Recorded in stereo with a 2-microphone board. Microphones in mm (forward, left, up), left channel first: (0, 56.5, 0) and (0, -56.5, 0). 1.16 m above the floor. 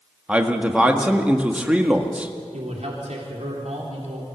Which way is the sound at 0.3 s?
10° right (ahead or behind).